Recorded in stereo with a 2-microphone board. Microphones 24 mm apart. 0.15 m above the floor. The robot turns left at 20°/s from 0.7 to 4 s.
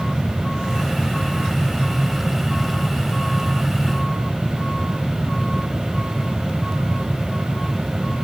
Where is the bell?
No bell in this recording.